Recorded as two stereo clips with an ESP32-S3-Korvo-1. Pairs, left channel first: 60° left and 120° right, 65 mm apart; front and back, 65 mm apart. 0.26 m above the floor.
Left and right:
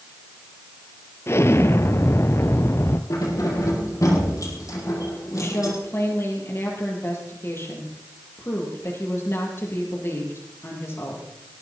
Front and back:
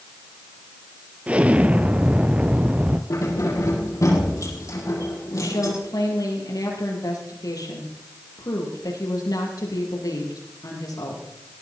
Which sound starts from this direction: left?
An explosion, at 1.3 s.